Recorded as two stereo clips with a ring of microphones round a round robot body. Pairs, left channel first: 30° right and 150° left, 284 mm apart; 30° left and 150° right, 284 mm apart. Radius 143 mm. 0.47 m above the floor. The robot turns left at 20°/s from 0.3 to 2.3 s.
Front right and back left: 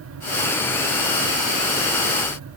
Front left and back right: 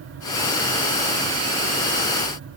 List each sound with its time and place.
Only background noise.